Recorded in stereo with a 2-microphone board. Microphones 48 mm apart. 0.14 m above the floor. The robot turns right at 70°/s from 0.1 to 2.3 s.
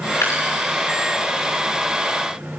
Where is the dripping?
85° left, 4 m; by 0.4 s 75° left (ahead or behind), 4 m.